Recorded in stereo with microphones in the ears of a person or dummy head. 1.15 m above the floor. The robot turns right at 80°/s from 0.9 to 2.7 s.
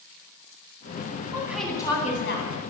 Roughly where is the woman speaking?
Ahead right.